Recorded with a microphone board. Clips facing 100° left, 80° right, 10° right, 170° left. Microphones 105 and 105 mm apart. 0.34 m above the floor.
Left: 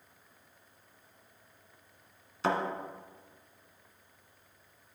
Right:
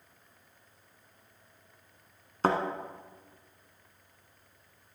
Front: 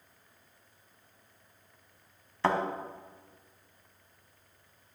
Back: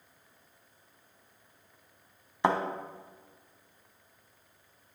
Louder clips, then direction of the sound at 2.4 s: Right 3 dB, back 1 dB; 115° right.